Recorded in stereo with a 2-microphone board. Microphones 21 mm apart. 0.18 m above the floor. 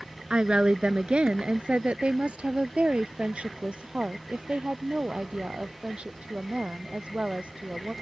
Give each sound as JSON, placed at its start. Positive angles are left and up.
{"t": 0.3, "sound": "a woman speaking", "side_deg": -50}